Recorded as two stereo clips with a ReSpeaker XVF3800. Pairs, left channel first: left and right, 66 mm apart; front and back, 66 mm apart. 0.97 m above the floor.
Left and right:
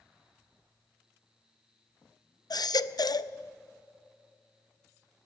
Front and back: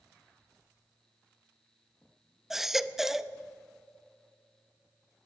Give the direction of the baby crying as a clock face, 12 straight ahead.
9 o'clock.